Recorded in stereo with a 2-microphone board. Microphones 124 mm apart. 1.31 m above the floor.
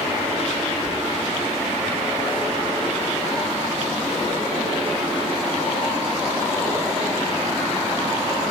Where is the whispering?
50° right (ahead or behind), 0.8 m.